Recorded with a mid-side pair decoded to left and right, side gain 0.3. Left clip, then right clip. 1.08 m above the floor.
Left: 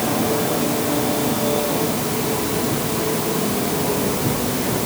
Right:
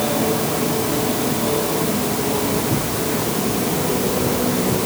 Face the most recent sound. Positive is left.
No sound to turn to.